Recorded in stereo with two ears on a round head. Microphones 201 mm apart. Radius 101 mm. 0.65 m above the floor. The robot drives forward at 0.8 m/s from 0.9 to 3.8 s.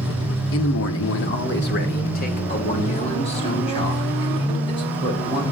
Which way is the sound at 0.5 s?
60° left (ahead or behind).